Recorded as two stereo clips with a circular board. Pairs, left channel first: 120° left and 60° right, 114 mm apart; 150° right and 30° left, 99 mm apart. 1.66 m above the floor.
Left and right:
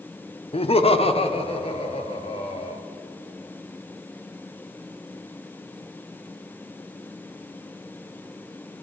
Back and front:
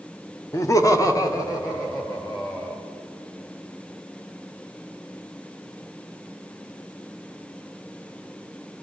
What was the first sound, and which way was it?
Laughter, 150° left.